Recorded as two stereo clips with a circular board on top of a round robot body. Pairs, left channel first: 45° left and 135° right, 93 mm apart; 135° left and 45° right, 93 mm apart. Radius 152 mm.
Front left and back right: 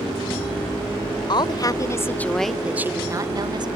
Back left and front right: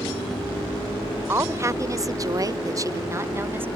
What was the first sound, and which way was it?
A woman speaking, 15° left.